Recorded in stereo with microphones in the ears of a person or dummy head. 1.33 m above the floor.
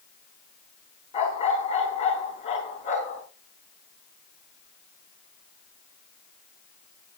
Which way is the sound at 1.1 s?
35° left (ahead or behind).